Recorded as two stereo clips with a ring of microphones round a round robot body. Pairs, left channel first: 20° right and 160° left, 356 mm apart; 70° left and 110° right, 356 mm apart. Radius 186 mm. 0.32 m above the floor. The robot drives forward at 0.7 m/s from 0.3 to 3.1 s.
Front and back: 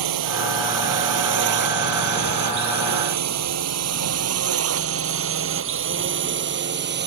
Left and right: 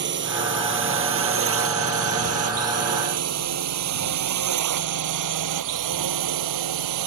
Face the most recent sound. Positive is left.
turn(degrees=-140)